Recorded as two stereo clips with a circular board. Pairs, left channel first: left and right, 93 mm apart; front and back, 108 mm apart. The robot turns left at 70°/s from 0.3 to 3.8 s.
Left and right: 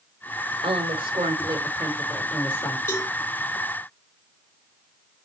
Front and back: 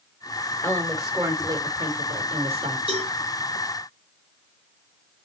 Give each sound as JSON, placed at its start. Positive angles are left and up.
{"t": 0.6, "sound": "a woman speaking", "azimuth_deg": -65, "distance_m": 2.5}
{"t": 2.9, "sound": "a cowbell", "azimuth_deg": 155, "distance_m": 3.5}